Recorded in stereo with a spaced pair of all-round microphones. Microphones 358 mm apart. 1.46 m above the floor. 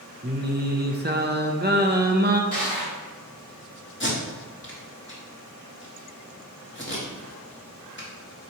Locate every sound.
0.2 s singing: 30° right (ahead or behind), 0.7 m
2.5 s crushing: 20° right (ahead or behind), 2.5 m
4.0 s tape being pulled: 30° left (ahead or behind), 1.7 m